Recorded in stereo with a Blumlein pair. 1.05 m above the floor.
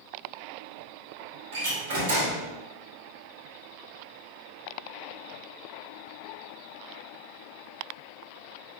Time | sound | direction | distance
1.5 | a door slam | 55° right | 1.8 m